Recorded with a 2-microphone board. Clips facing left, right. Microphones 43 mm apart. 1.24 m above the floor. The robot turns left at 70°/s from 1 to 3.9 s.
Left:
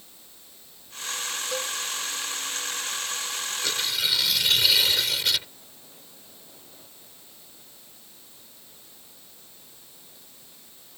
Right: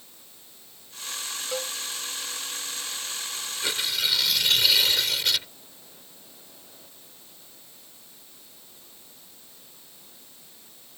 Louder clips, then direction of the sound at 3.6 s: Right 1 dB; 20° right (ahead or behind).